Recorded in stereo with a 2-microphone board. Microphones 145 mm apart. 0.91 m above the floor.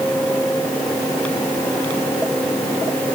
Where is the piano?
I don't hear a piano.